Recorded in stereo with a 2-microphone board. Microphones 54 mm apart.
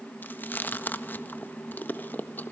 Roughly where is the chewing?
Left.